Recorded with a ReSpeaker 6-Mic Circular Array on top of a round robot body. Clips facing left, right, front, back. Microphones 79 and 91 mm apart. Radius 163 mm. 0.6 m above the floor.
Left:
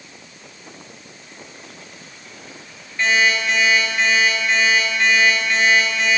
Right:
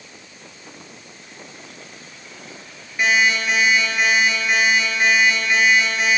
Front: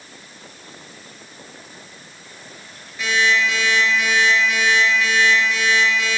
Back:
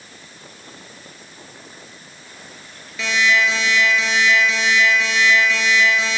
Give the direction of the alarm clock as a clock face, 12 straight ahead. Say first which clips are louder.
Even, back 1 dB; 6 o'clock.